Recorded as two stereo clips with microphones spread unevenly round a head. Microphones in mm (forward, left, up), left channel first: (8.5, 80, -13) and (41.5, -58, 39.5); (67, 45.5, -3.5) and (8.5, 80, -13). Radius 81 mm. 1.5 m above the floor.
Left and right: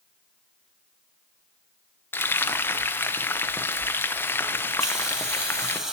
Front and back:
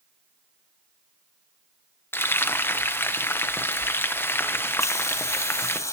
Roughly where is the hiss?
Ahead.